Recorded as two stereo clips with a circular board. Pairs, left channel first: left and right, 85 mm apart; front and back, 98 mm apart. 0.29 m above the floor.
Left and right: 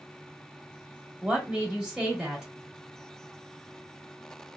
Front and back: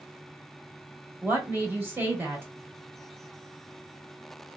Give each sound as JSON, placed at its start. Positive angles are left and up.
{"t": 1.2, "sound": "a woman speaking", "azimuth_deg": -155, "distance_m": 1.0}